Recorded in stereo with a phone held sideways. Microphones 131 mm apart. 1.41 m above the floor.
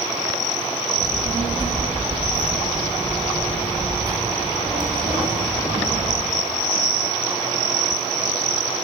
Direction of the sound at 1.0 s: 35° right (ahead or behind).